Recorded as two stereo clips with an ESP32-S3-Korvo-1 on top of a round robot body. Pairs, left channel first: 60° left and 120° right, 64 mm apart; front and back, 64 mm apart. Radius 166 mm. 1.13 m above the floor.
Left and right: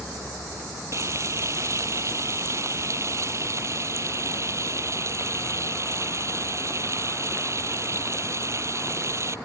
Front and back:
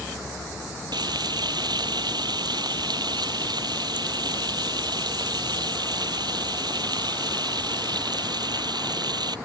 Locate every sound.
0.9 s frying: 165° right